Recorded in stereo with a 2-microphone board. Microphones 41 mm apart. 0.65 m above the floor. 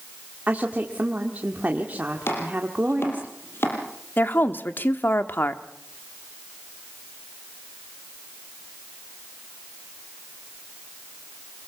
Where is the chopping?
85° left, 5.5 m.